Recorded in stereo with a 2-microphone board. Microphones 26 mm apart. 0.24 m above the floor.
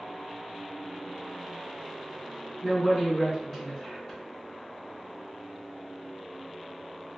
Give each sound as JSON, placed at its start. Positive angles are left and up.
{"t": 2.6, "sound": "a woman speaking", "side_deg": 30, "distance_m": 1.9}